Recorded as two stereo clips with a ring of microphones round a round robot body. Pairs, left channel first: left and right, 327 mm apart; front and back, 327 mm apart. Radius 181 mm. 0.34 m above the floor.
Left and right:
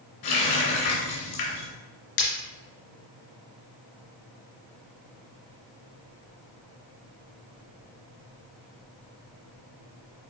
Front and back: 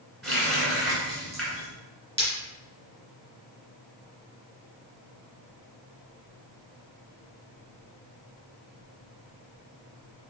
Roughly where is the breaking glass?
Left.